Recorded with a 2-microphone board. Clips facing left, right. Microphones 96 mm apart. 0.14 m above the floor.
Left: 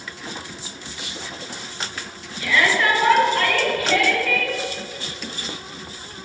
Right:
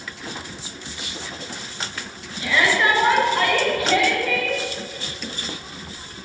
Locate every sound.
2.4 s a shout: 25° right (ahead or behind), 2 m; by 4.6 s 20° right (ahead or behind), 1.5 m